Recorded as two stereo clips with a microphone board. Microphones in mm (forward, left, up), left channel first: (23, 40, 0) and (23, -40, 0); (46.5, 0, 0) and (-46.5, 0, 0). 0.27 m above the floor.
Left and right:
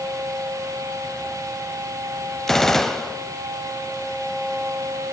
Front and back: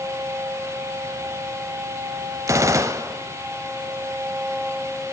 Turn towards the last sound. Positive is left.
turn(degrees=175)